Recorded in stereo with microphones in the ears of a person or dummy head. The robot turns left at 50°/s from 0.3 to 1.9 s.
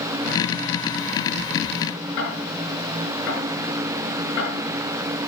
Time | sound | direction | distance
2.2 | ticking | 70° left (ahead or behind) | 6 m